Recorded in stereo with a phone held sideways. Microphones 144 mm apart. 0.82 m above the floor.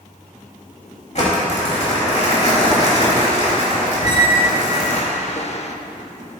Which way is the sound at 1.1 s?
55° left (ahead or behind).